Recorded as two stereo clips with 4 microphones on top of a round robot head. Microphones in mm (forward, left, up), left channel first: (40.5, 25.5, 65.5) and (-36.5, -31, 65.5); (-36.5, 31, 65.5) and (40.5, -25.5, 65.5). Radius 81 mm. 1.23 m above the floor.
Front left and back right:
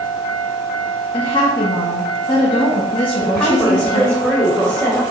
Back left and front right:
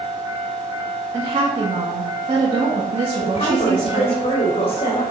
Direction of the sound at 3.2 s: 115° left.